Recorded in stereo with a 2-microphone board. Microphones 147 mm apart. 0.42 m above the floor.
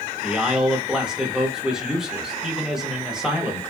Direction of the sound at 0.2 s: 5° right (ahead or behind).